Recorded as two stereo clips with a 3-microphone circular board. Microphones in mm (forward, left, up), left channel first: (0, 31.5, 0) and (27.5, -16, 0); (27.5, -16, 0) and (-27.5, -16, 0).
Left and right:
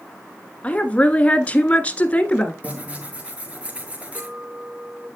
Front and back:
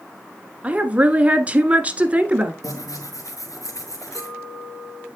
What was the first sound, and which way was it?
A woman speaking, 155° left.